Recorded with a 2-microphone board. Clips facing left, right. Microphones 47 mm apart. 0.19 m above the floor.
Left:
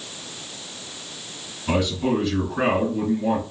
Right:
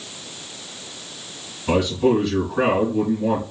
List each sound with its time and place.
1.7 s a man speaking: 10° right (ahead or behind), 2 m